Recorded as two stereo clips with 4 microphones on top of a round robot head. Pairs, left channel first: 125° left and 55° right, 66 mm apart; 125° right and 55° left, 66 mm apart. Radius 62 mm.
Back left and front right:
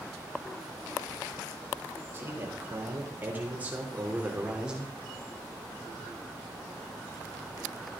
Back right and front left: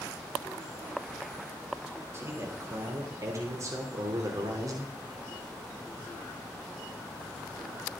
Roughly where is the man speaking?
Ahead.